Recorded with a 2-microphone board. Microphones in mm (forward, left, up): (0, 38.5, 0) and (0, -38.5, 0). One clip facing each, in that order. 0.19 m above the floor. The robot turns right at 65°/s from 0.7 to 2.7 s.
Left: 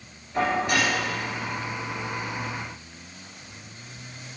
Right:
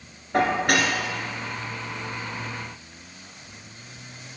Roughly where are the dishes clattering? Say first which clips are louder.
Right 2 dB; right.